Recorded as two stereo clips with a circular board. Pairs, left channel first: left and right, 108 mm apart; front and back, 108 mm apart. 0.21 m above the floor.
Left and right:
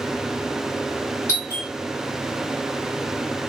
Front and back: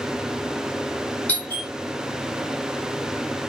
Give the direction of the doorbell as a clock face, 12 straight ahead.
10 o'clock.